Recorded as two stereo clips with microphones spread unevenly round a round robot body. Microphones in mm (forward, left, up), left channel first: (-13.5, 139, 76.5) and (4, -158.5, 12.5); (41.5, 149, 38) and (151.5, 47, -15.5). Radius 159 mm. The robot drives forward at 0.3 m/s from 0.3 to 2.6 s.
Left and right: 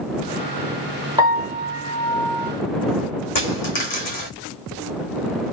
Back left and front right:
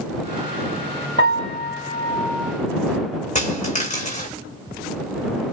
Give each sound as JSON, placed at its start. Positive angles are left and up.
{"t": 1.2, "sound": "a piano", "azimuth_deg": -155, "distance_m": 1.1}
{"t": 3.4, "sound": "a dropped coin", "azimuth_deg": 110, "distance_m": 1.6}